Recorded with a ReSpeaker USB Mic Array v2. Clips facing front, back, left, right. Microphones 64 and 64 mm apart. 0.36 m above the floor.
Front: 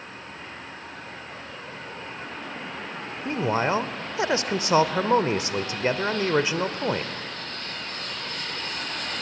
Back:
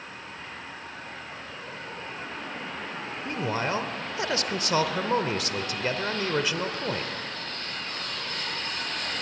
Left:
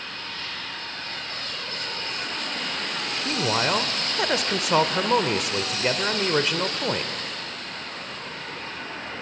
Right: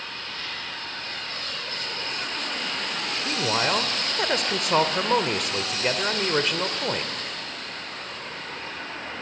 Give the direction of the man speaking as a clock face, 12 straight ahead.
12 o'clock.